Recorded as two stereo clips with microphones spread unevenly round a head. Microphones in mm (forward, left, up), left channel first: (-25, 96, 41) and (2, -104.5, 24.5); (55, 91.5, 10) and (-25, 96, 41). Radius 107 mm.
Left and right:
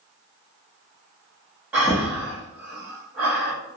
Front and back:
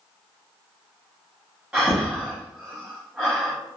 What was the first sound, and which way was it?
Breathing, 170° right.